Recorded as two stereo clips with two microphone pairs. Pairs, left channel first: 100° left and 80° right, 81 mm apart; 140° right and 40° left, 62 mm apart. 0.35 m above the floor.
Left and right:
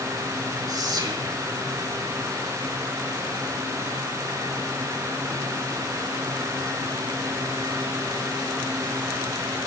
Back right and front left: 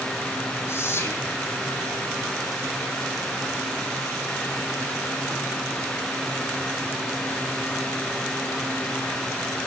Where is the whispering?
105° right, 2 m.